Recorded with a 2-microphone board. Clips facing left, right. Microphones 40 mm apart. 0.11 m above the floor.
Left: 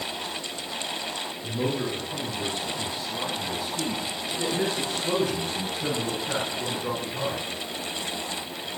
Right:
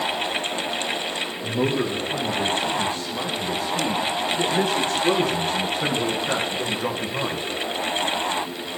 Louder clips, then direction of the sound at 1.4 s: Right 5 dB; 55° right (ahead or behind).